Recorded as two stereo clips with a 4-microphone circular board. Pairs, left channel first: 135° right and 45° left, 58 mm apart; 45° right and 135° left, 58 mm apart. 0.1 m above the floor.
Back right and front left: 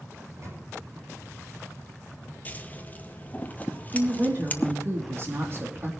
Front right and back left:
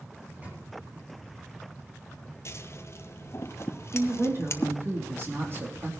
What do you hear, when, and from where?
0.2 s a microwave: 75° left, 4 m
2.5 s scissors: 75° right, 0.9 m
3.9 s a woman speaking: 90° left, 3.5 m